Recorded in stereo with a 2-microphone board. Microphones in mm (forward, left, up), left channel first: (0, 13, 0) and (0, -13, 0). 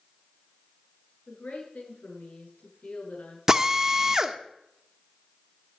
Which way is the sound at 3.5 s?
25° right (ahead or behind).